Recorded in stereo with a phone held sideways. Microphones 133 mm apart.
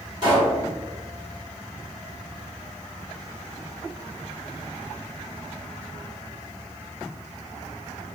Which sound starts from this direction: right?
A pop, at 0.2 s.